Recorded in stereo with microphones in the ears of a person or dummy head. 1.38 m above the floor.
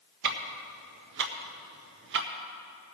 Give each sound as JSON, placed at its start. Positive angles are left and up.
{"t": 0.2, "sound": "ticking", "side_deg": -50, "distance_m": 0.6}